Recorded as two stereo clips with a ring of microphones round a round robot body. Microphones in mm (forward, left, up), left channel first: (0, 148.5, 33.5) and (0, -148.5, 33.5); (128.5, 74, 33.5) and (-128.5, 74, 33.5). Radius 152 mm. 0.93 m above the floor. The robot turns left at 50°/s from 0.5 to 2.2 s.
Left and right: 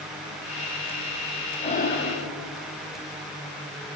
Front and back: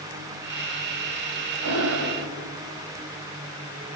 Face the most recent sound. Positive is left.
turn(degrees=135)